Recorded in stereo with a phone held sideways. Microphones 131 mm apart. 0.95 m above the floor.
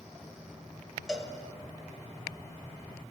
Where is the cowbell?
5° left (ahead or behind), 0.7 m.